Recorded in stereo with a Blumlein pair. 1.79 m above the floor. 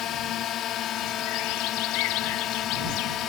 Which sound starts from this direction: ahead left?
A drone, at 0.0 s.